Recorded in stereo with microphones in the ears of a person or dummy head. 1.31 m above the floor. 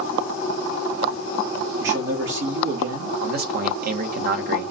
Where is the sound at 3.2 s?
55° right (ahead or behind), 1.0 m.